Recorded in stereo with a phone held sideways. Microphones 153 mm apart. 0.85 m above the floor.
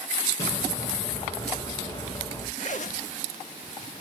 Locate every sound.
0.4 s an explosion: 25° left (ahead or behind), 8 m
2.6 s a zipper: 55° left (ahead or behind), 1.4 m